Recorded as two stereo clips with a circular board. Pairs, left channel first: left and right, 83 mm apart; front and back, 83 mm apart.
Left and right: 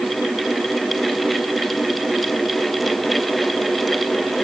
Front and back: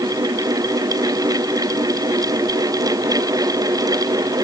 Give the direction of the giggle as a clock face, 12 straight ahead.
No giggle in this recording.